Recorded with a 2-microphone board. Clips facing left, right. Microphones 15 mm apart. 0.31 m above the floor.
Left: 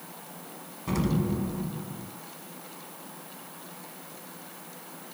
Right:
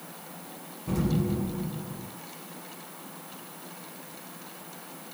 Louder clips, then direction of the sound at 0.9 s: Even; 50° left (ahead or behind).